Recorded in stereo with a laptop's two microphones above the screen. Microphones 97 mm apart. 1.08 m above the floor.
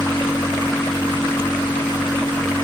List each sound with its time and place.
0.0 s a machine running: 25° left (ahead or behind), 0.8 m